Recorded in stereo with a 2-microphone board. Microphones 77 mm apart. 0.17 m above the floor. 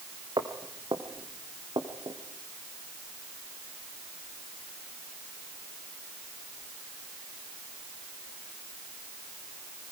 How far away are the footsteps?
About 3 m.